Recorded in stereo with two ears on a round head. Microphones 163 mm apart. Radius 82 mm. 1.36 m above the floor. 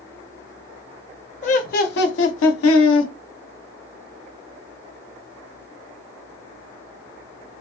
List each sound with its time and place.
1.4 s laughter: 40° left (ahead or behind), 1.0 m; by 3.1 s 75° left (ahead or behind), 0.8 m